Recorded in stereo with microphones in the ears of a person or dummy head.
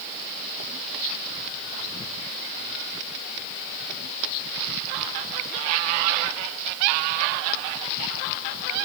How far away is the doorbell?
I don't hear a doorbell.